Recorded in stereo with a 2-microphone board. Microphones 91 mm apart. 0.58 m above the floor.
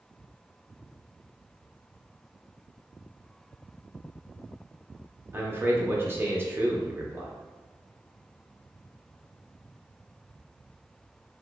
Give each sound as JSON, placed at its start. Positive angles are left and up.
{"t": 5.3, "sound": "a man speaking", "side_deg": -25, "distance_m": 0.6}